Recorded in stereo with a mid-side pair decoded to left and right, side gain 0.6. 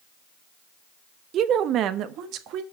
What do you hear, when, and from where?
1.3 s a woman speaking: 50° right, 0.7 m; by 2.6 s 65° right, 1.3 m